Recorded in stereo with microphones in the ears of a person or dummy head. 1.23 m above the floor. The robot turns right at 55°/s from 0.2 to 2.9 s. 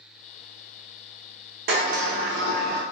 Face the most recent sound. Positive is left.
turn(degrees=-60)